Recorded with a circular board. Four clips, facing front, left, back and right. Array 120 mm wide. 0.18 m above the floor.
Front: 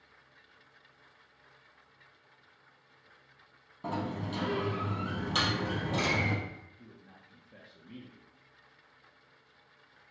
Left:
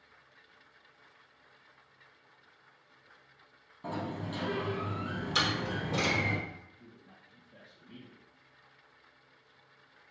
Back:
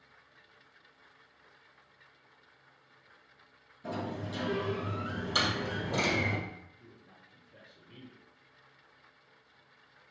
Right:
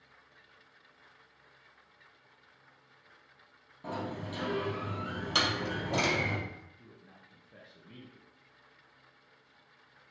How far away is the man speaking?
About 3 m.